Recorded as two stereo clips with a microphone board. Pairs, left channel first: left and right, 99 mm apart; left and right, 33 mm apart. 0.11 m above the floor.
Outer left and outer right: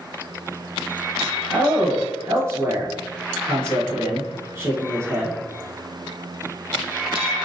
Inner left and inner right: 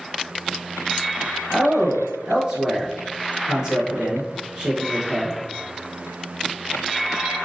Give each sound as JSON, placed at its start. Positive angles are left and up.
{"t": 1.5, "sound": "a man speaking", "side_deg": -25, "distance_m": 1.6}